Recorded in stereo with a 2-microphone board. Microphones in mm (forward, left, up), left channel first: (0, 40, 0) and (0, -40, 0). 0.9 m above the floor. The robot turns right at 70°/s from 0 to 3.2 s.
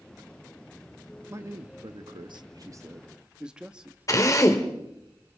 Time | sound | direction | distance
1.3 | a man speaking | 145° right | 1.0 m
4.1 | a drill | 40° left (ahead or behind) | 1.8 m